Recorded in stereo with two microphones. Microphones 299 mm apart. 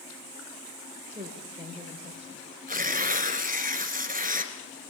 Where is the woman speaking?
20° right (ahead or behind), 4 m.